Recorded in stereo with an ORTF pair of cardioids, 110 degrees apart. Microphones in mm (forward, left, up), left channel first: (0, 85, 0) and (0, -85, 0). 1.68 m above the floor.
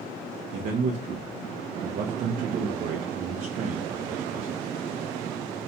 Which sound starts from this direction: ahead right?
A man speaking, at 0.5 s.